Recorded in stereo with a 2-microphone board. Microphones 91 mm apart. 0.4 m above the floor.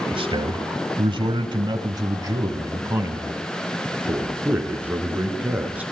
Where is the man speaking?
60° right (ahead or behind), 1.6 m; by 5.8 s 15° right (ahead or behind), 5 m.